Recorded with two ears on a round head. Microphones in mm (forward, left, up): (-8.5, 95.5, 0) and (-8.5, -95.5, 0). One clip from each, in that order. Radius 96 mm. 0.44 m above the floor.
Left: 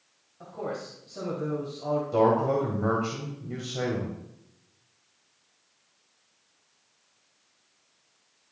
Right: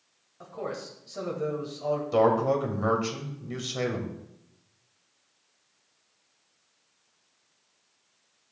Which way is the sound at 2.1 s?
50° right (ahead or behind).